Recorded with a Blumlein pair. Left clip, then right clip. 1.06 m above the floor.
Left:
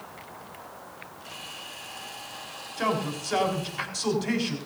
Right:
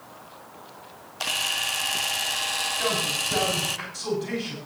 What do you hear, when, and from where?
1.2 s a camera shutter: 45° right, 0.9 m
2.8 s a man speaking: 15° left, 4.5 m